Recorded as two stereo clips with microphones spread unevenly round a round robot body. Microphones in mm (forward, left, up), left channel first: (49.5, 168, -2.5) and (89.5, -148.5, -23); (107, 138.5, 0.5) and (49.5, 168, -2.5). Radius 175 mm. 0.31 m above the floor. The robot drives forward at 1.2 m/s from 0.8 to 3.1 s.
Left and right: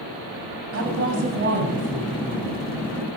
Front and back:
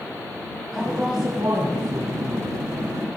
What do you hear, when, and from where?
0.7 s a woman speaking: 115° right, 1.7 m; by 2.5 s 155° right, 3 m